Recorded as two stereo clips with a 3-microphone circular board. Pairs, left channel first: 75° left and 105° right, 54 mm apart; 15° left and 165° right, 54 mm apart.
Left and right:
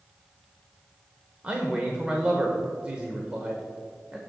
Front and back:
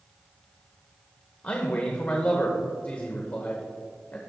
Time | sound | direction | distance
1.4 | a man speaking | 40° right | 0.9 m